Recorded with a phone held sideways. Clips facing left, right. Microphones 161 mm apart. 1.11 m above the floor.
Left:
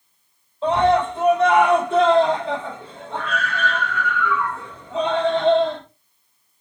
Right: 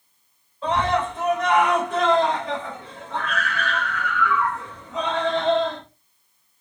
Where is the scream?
30° left (ahead or behind), 5 m.